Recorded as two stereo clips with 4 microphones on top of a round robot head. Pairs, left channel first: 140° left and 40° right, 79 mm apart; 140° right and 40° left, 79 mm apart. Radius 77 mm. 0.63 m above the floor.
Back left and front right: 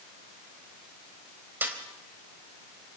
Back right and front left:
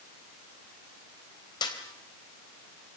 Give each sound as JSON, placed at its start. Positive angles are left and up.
{"t": 1.6, "sound": "a snare drum", "azimuth_deg": -110, "distance_m": 3.5}